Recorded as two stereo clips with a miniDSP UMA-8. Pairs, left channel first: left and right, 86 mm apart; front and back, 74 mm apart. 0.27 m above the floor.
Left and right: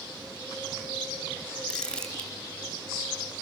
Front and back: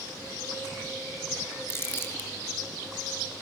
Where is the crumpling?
15° left, 1.9 m.